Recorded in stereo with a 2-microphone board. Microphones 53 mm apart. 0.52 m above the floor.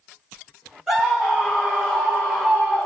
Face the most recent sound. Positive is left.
turn(degrees=-5)  # may be behind; listen again after turning